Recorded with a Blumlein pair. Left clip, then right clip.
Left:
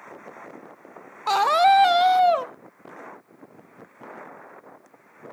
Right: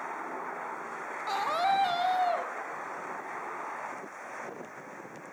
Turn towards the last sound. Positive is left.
turn(degrees=30)